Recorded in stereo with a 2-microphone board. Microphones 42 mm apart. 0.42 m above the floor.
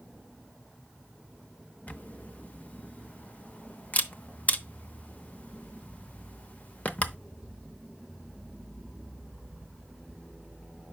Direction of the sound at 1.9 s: 40° left (ahead or behind).